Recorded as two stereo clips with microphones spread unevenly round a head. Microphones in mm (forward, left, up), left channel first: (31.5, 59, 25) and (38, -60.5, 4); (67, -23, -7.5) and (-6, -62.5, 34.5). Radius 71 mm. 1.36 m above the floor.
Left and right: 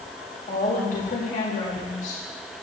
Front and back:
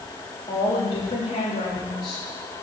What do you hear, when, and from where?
0.5 s a woman speaking: 70° left, 3.5 m